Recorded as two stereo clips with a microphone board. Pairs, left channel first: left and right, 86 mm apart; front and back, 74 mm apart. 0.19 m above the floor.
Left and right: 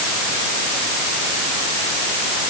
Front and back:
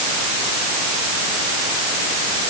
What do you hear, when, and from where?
Only background noise.